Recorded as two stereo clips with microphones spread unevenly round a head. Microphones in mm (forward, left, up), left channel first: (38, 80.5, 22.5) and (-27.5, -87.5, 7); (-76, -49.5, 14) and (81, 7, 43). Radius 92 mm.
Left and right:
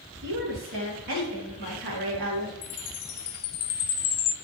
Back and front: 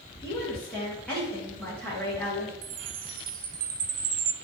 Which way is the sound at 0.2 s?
75° right.